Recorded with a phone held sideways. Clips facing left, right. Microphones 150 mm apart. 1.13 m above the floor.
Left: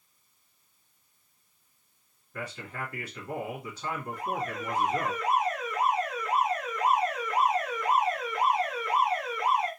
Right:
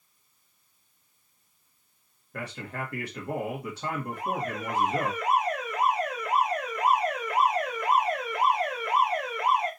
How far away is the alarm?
About 2.5 m.